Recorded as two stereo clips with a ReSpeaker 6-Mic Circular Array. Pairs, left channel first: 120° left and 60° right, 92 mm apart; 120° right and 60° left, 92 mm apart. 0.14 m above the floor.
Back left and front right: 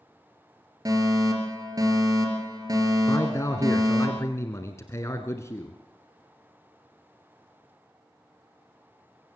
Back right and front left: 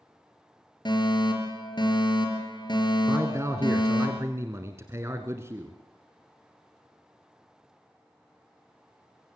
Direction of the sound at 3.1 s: 90° left.